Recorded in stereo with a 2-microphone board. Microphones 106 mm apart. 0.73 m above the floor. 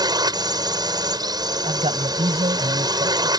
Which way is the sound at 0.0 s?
45° right (ahead or behind).